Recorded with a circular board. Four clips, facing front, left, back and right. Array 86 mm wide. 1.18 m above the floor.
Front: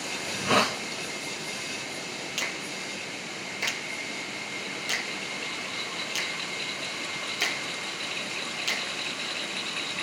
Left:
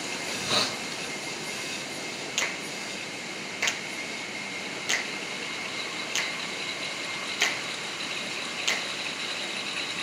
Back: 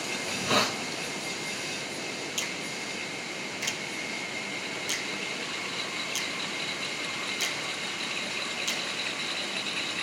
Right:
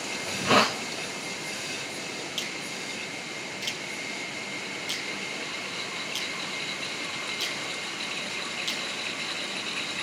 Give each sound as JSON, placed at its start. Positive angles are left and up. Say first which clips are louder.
{"t": 0.2, "sound": "a hiss", "louder": "right 9 dB, front 3 dB", "azimuth_deg": -70, "distance_m": 0.7}
{"t": 2.4, "sound": "a finger snap", "louder": "left 2 dB, front 1 dB", "azimuth_deg": 70, "distance_m": 0.7}